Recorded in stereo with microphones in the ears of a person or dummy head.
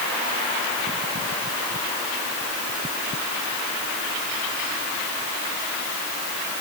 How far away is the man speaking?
No man speaking in this recording.